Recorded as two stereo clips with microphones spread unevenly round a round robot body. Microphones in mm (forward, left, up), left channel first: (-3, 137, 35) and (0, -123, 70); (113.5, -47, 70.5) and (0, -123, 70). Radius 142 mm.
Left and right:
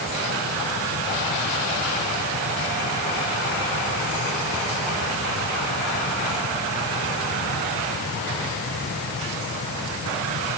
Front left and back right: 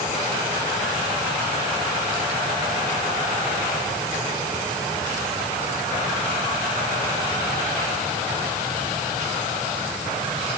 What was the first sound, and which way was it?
Only background noise.